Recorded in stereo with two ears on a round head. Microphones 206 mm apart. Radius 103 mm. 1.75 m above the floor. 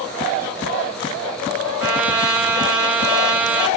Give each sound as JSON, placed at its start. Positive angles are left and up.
{"t": 1.8, "sound": "a trumpet", "side_deg": -5, "distance_m": 3.5}